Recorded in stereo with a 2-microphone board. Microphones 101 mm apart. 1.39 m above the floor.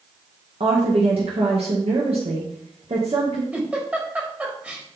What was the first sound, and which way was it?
A woman speaking, 75° right (ahead or behind).